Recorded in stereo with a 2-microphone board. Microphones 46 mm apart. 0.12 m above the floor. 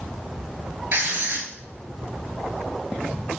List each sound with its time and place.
0.9 s writing: 45° right (ahead or behind), 0.7 m